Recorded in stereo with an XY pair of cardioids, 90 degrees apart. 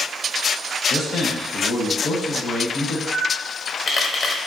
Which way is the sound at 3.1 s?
55° left.